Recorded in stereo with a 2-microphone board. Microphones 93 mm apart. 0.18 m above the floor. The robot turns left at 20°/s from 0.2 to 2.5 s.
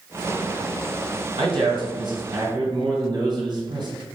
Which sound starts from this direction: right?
A man speaking, at 1.4 s.